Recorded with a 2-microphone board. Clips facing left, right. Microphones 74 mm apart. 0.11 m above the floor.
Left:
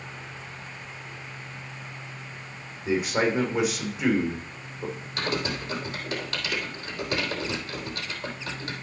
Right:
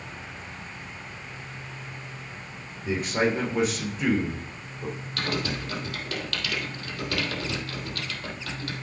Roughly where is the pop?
No pop in this recording.